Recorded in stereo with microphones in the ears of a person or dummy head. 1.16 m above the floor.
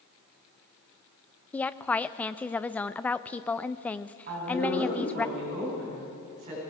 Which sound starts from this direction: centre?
A woman speaking, at 1.5 s.